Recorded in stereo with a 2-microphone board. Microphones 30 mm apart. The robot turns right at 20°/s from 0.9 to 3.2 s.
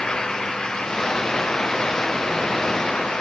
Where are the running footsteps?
I don't hear running footsteps.